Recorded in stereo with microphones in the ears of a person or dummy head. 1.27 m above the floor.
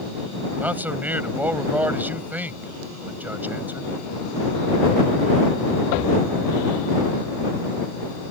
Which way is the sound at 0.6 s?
10° right (ahead or behind).